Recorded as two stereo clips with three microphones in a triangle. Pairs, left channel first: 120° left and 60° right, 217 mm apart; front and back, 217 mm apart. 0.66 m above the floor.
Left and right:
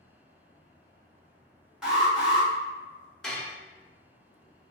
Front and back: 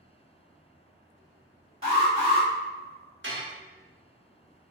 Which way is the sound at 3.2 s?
150° right.